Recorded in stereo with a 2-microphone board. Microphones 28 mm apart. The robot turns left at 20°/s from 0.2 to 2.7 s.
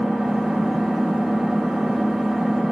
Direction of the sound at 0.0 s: 90° right.